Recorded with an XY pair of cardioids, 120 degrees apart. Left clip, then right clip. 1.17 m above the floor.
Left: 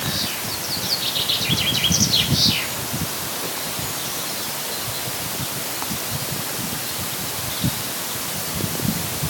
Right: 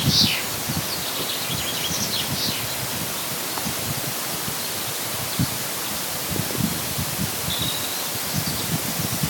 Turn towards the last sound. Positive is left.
No sound to turn to.